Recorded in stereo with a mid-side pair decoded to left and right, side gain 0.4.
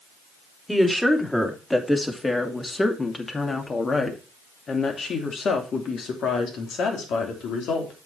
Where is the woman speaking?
5° left, 3 m; by 7.9 s 80° left, 3.5 m.